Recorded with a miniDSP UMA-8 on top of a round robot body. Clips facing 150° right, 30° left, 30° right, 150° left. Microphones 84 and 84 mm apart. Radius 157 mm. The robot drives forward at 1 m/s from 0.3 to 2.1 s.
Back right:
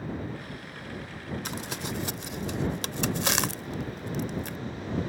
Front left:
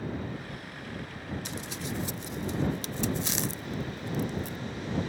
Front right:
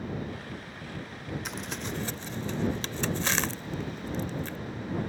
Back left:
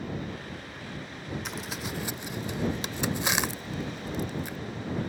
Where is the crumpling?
120° right; by 4.6 s 135° right.